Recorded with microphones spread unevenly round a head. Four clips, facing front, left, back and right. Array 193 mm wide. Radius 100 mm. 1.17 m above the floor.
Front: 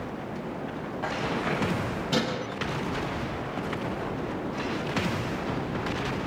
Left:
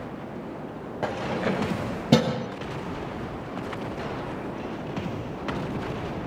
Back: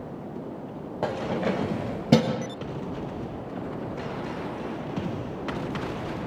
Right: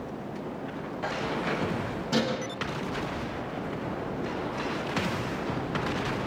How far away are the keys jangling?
About 3 m.